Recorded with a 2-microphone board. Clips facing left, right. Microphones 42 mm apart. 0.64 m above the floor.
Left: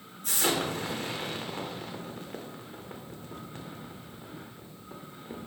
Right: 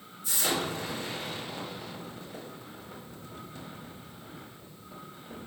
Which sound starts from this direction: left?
An explosion, at 0.2 s.